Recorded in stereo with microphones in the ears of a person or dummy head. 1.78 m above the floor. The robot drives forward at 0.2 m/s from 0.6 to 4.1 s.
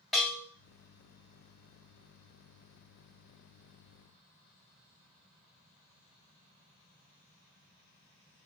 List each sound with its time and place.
0.1 s a bell: centre (ahead or behind), 0.7 m